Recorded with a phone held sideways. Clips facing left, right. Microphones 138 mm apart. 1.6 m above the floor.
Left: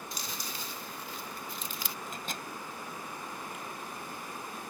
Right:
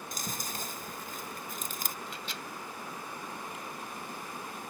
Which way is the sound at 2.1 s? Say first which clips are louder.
Left 2 dB; 45° left (ahead or behind).